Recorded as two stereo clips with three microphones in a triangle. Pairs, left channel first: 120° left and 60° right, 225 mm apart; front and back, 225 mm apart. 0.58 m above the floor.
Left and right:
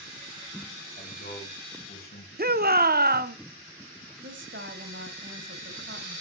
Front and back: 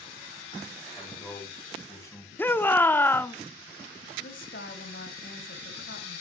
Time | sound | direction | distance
1.0 | a man speaking | 75° left | 5 m
2.4 | a shout | 80° right | 0.8 m
4.2 | a woman speaking | 30° right | 3 m